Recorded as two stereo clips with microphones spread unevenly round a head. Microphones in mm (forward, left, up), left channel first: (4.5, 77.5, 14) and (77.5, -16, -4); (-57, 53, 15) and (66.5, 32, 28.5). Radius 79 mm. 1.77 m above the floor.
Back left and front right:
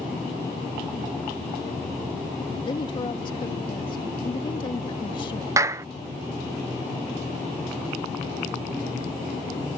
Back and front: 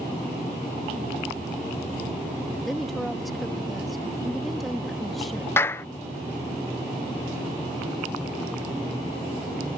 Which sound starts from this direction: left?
A woman speaking, at 2.6 s.